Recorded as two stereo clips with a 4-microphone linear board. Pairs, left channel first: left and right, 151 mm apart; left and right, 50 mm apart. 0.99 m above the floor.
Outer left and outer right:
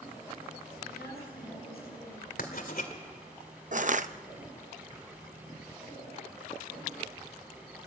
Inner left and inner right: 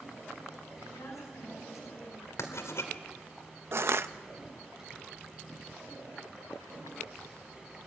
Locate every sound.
0.9 s a woman speaking: 80° left, 6 m
2.4 s writing: 65° left (ahead or behind), 2.5 m
3.7 s crushing: 55° right (ahead or behind), 0.7 m